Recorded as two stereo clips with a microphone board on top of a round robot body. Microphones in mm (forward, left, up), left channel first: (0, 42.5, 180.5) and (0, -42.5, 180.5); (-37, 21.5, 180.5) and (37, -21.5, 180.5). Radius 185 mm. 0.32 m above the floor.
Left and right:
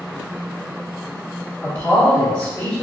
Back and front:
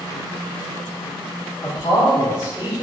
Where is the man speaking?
145° left, 1.7 m.